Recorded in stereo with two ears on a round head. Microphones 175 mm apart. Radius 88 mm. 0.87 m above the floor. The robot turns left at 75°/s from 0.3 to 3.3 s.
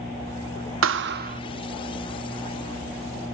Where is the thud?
95° right, 0.8 m; by 1.4 s 140° right, 0.8 m.